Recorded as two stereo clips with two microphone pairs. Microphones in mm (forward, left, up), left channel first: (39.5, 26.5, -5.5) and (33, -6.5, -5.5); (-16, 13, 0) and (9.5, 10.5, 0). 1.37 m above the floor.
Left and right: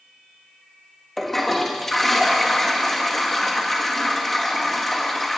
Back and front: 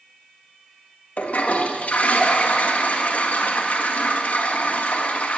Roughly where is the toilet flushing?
Behind.